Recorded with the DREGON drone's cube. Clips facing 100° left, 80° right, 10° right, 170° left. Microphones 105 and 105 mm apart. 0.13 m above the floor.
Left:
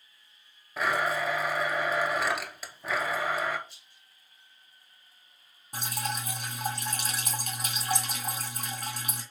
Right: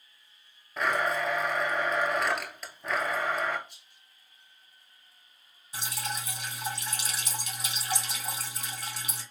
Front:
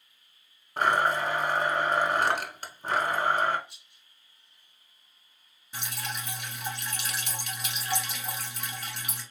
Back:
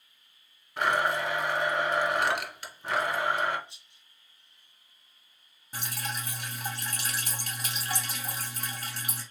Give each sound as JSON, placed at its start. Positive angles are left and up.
{"t": 0.8, "sound": "a blender", "azimuth_deg": 15, "distance_m": 0.7}
{"t": 3.7, "sound": "a rattle", "azimuth_deg": -140, "distance_m": 2.0}
{"t": 5.7, "sound": "dripping", "azimuth_deg": 130, "distance_m": 1.4}